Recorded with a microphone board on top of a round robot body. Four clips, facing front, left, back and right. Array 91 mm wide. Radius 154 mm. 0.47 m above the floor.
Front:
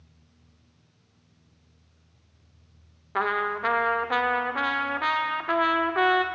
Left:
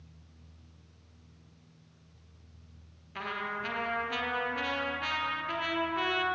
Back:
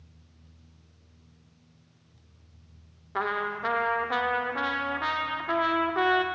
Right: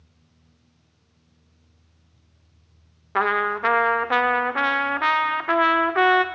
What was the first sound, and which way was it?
A trumpet, 80° right.